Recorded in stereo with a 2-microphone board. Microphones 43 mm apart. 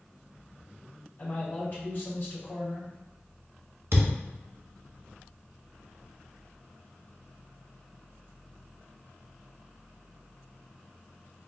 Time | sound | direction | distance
1.2 | a man speaking | 45° left (ahead or behind) | 1.8 m
3.9 | a thud | 80° right | 1.5 m